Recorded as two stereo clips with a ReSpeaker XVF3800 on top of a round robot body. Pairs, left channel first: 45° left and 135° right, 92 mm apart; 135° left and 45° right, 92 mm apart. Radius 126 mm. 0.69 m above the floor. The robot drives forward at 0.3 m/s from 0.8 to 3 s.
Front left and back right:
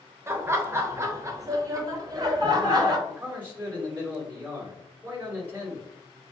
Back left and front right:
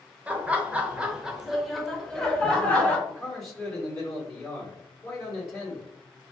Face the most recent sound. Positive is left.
turn(degrees=175)